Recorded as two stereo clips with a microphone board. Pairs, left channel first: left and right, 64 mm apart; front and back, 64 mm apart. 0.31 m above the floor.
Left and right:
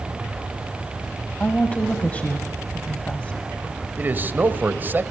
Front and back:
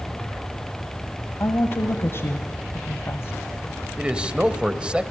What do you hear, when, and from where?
1.4 s a woman speaking: 30° left, 1.5 m
4.0 s a man speaking: 120° right, 1.4 m